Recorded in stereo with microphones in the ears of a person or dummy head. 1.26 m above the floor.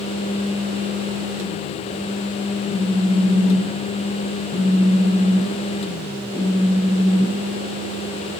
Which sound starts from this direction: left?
A phone buzzing, at 2.7 s.